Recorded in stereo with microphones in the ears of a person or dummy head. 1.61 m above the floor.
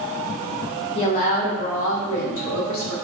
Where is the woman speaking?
30° left (ahead or behind), 0.7 m; by 3.0 s 85° left, 1.3 m.